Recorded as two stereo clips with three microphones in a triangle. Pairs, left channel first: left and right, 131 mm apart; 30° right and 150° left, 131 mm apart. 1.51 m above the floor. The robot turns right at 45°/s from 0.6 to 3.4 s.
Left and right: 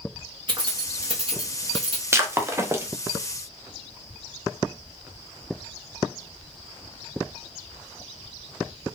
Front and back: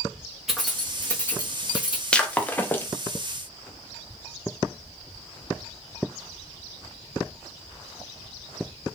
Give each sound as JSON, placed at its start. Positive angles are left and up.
{"t": 0.5, "sound": "keys jangling", "azimuth_deg": -125, "distance_m": 1.1}
{"t": 2.1, "sound": "breaking glass", "azimuth_deg": -100, "distance_m": 0.6}